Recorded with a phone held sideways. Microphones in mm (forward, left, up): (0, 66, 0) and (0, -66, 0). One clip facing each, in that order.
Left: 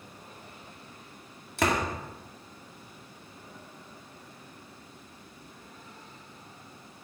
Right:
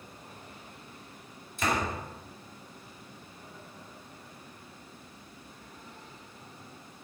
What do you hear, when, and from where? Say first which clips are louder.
1.6 s a door slam: left 3 dB; 75° left (ahead or behind), 2 m